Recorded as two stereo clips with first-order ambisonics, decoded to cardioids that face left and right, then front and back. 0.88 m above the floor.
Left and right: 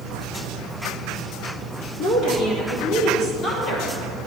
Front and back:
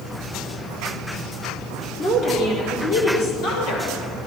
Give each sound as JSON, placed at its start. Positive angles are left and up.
{"t": 2.0, "sound": "a woman speaking", "azimuth_deg": 50, "distance_m": 2.0}